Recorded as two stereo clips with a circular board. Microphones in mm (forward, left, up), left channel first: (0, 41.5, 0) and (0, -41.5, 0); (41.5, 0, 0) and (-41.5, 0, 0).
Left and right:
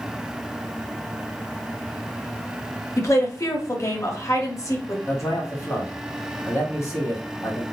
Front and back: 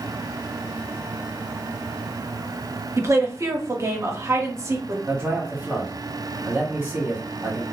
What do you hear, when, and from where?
3.0 s a woman speaking: 135° left, 0.9 m
5.1 s a man speaking: 120° left, 1.3 m